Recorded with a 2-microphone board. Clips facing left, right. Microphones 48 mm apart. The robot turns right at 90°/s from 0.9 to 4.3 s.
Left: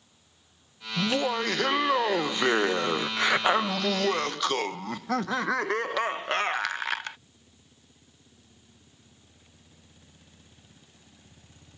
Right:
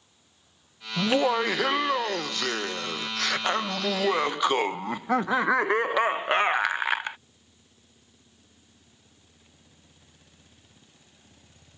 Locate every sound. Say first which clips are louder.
1.0 s laughter: right 4 dB; 25° right (ahead or behind); by 7.2 s 20° right (ahead or behind)